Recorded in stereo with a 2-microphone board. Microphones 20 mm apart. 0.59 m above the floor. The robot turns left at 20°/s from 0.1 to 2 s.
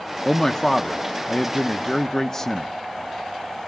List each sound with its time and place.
0.2 s a man speaking: 20° left (ahead or behind), 0.6 m